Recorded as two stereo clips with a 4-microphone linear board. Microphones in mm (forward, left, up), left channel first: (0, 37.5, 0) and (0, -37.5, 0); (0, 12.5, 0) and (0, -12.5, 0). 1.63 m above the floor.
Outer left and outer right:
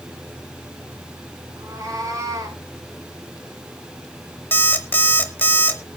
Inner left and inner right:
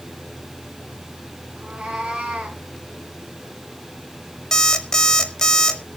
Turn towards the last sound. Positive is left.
turn(degrees=25)  # may be behind; listen again after turning